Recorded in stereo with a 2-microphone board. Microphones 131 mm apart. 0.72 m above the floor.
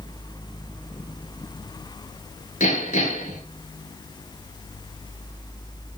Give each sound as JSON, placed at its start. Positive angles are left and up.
{"t": 2.6, "sound": "hammering", "side_deg": 70, "distance_m": 9.5}